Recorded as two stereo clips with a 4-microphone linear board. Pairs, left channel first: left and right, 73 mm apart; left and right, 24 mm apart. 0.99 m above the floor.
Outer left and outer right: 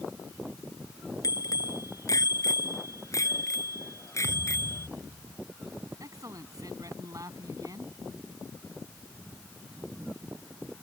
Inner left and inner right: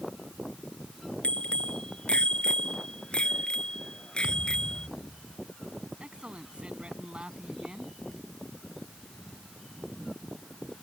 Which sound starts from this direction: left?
A bicycle bell, at 1.2 s.